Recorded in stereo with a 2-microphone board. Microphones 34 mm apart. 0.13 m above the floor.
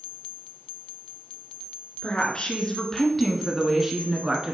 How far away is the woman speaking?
About 1.5 m.